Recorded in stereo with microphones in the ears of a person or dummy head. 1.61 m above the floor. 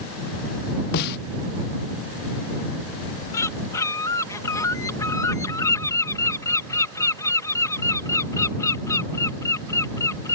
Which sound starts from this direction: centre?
A bird, at 3.3 s.